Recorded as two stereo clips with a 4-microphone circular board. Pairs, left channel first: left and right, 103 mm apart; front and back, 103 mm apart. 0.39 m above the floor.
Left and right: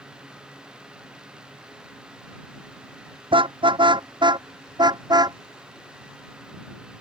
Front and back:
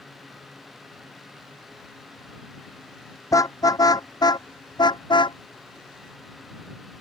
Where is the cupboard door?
No cupboard door in this recording.